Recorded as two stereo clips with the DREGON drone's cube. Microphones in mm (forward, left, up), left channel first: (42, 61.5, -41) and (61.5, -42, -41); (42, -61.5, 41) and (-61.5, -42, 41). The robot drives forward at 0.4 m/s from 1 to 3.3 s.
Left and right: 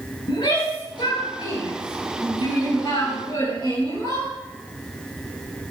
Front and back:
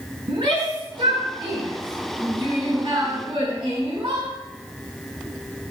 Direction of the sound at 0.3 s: 135° left.